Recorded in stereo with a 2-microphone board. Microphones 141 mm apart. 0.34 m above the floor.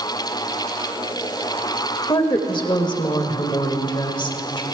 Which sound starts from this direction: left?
A woman speaking, at 2.1 s.